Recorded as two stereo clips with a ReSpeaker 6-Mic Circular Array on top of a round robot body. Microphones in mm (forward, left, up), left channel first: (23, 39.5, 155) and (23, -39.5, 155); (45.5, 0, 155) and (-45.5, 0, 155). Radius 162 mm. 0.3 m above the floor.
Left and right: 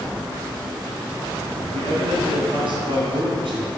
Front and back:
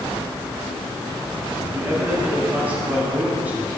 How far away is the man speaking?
About 4 m.